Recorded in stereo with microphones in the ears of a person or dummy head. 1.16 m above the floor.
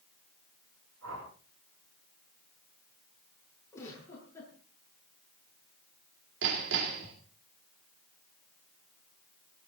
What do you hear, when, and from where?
1.0 s a whoosh: 75° right (ahead or behind), 8 m
3.7 s a giggle: 15° left (ahead or behind), 8.5 m
6.4 s hammering: 65° right (ahead or behind), 2.5 m